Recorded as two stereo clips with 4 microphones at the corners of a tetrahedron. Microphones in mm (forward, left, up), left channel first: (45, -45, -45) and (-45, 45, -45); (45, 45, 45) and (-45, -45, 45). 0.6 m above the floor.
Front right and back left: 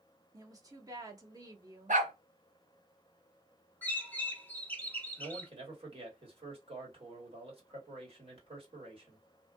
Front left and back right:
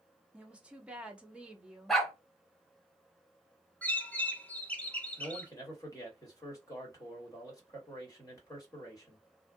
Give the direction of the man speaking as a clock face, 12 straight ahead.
9 o'clock.